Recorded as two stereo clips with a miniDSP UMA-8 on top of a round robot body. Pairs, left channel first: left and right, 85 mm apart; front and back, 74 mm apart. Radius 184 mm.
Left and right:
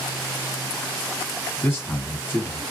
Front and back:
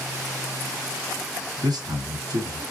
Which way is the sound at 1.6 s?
165° left.